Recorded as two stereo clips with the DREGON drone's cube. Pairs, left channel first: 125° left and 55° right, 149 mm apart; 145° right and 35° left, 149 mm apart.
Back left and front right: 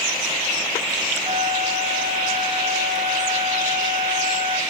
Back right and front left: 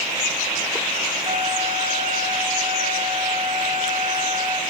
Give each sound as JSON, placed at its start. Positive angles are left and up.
{"t": 1.2, "sound": "a flute", "azimuth_deg": -5, "distance_m": 5.0}